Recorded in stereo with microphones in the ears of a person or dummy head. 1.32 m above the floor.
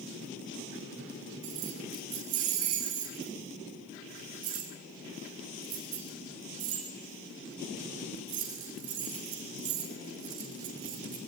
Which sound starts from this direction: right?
Keys jangling, at 1.4 s.